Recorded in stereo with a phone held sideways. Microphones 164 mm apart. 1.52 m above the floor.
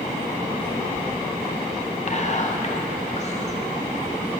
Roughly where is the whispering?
Left.